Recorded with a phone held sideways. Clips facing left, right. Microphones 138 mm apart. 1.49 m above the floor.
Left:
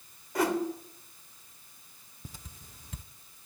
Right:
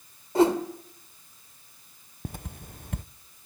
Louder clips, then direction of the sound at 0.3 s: Right 7 dB; 30° right (ahead or behind).